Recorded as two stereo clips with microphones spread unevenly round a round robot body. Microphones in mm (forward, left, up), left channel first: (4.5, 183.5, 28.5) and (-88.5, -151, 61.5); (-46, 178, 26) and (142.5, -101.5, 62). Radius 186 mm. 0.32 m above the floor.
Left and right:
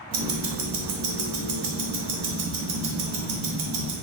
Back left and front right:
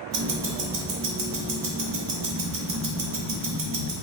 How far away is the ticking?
About 1.1 m.